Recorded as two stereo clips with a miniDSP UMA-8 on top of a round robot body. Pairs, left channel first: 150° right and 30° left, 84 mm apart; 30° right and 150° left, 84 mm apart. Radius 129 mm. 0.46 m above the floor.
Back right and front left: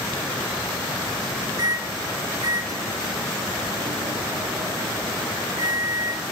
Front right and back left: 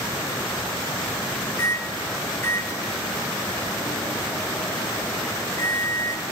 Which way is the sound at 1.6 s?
15° left.